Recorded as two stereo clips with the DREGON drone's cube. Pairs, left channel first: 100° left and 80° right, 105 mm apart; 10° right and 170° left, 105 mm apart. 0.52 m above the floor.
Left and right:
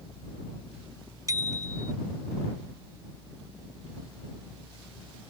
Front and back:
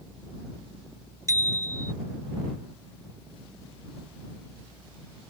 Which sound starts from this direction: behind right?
A bicycle bell, at 1.3 s.